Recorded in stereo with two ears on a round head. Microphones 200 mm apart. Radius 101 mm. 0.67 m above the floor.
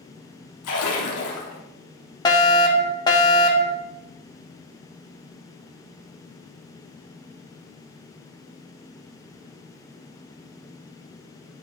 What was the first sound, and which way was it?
A splash, 80° left.